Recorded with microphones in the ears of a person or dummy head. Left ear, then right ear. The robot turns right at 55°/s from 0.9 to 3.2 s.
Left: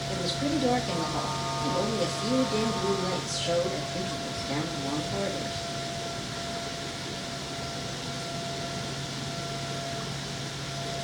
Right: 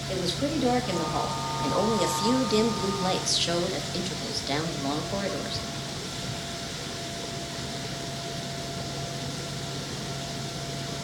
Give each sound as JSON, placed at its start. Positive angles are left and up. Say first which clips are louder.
{"t": 0.1, "sound": "a woman speaking", "louder": "right 2 dB", "azimuth_deg": -170, "distance_m": 1.9}